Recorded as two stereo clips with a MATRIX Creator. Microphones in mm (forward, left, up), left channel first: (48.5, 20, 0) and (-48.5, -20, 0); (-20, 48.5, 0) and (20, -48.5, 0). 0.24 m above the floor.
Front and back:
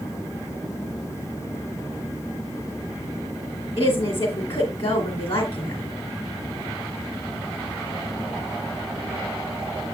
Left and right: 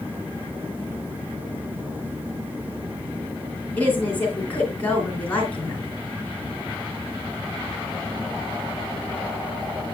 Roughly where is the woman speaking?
Ahead left.